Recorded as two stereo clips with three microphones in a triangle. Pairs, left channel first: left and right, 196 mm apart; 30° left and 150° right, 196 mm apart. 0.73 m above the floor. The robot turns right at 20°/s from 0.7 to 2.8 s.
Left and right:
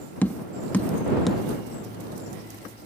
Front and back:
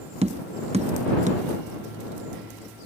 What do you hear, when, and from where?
0.2 s tapping: 170° left; by 1.4 s straight behind